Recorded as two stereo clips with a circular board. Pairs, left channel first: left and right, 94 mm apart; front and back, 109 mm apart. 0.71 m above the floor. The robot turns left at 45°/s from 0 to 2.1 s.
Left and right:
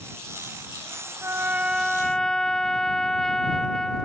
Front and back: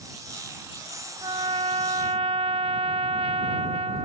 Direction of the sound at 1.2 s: 145° right.